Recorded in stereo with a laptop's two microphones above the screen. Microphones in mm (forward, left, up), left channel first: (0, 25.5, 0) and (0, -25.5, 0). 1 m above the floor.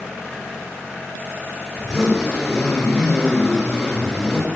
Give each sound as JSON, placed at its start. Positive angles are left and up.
{"t": 1.8, "sound": "a zipper", "side_deg": -10, "distance_m": 3.5}